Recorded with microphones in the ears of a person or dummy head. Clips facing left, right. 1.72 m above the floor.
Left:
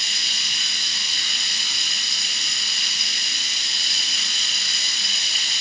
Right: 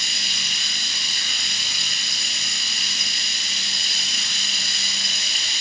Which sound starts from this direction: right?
Running water, at 0.0 s.